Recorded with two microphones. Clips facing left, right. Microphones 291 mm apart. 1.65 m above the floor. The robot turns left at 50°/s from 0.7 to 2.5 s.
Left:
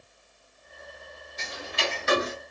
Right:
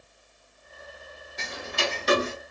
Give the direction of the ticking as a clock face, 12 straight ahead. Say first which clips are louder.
Right 2 dB; 3 o'clock.